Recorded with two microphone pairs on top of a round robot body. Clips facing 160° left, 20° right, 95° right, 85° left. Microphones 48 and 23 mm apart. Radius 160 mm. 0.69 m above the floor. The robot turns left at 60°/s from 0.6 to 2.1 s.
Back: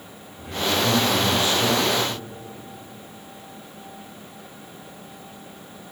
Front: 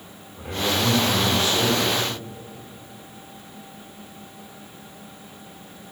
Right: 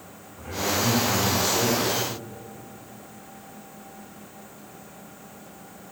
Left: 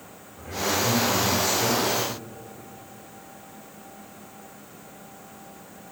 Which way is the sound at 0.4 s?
20° right.